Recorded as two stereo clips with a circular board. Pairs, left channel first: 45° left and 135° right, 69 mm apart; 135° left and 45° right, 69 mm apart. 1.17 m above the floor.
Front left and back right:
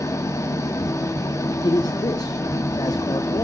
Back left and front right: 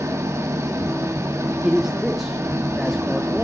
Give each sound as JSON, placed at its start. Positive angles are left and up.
{"t": 0.0, "sound": "an engine running", "azimuth_deg": 5, "distance_m": 1.6}
{"t": 1.6, "sound": "a man speaking", "azimuth_deg": 45, "distance_m": 0.8}